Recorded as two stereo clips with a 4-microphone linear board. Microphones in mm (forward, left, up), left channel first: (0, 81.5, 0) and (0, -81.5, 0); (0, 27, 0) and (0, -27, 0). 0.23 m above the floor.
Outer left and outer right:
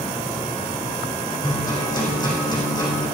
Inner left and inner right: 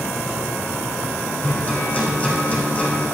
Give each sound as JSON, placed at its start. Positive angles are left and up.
{"t": 1.4, "sound": "a guitar", "side_deg": 25, "distance_m": 4.0}